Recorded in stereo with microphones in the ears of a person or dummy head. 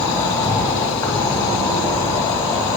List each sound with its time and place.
0.0 s an insect: 25° left (ahead or behind), 2 m